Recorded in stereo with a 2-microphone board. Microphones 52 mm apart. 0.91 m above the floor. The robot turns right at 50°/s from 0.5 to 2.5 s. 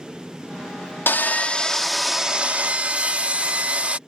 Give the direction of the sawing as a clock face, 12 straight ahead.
8 o'clock.